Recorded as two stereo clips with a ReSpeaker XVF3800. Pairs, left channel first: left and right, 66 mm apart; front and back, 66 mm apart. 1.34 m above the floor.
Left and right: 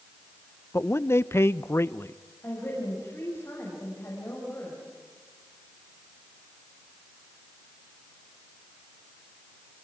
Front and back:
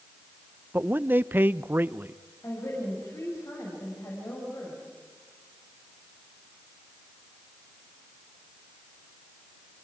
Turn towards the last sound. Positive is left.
turn(degrees=35)